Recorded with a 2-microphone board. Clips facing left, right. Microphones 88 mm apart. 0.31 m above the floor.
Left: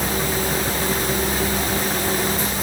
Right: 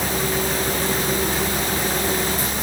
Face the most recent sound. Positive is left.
No sound to turn to.